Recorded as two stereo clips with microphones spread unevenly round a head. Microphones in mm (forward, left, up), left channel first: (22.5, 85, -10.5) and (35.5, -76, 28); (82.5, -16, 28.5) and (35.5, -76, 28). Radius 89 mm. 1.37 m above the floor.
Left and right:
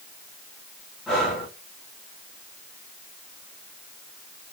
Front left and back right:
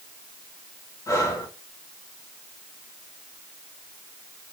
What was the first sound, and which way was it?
Breathing, 5° left.